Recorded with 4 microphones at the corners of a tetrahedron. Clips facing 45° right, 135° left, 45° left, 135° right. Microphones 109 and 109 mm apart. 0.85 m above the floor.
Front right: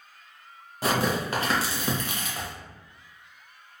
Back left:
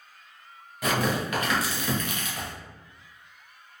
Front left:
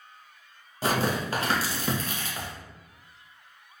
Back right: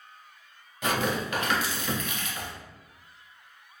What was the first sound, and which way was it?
Tearing paper, straight ahead.